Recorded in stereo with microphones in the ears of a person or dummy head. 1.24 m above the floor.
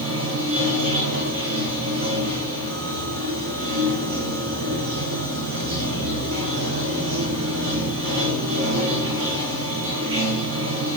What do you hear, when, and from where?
0.0 s running water: 70° right (ahead or behind), 9.5 m